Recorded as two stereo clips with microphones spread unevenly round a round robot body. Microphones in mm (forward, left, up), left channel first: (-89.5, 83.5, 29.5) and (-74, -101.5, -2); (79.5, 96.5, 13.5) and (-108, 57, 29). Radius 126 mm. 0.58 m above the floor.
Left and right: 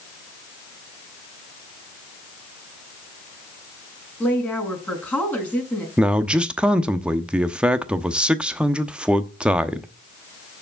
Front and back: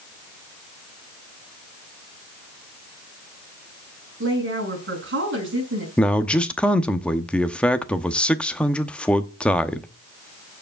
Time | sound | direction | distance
4.2 | a woman speaking | 175° left | 6 m
6.0 | a man speaking | 45° right | 0.8 m